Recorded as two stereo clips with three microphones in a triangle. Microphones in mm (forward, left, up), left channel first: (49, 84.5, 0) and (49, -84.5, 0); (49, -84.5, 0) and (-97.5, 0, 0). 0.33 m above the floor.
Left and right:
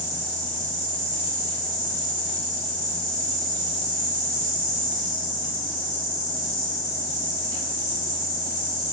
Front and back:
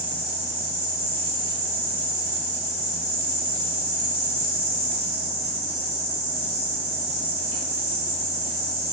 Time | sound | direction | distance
0.0 | an insect | 130° right | 1.9 m